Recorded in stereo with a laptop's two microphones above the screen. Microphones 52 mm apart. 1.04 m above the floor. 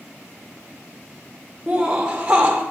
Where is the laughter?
15° right (ahead or behind), 0.8 m.